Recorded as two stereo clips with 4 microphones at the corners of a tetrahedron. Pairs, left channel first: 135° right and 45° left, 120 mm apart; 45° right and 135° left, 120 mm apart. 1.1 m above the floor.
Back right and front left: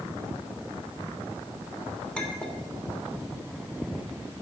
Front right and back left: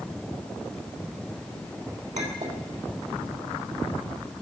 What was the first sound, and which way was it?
A clink, 145° left.